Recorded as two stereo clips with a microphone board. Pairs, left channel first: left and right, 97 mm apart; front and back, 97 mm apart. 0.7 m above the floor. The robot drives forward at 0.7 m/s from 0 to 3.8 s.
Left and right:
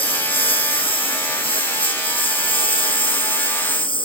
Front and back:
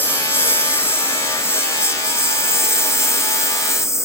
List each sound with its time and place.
0.0 s a lawn mower: 70° left; by 4.1 s 60° left